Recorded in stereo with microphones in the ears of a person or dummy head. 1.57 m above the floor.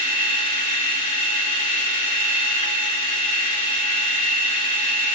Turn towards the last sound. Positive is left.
turn(degrees=30)  # may be behind; listen again after turning